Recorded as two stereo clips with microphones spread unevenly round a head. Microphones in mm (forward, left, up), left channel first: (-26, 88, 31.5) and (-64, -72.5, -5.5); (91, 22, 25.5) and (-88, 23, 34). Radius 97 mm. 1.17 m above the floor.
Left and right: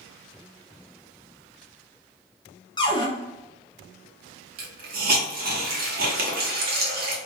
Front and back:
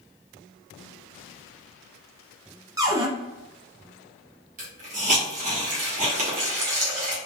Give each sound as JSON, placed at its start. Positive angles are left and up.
{"t": 2.8, "sound": "a cupboard door", "azimuth_deg": 115, "distance_m": 0.6}
{"t": 4.6, "sound": "a hiss", "azimuth_deg": -135, "distance_m": 0.9}